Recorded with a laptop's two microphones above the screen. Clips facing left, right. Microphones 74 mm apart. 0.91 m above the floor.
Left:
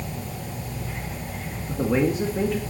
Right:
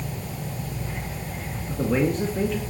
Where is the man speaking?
5° left (ahead or behind), 1.7 m.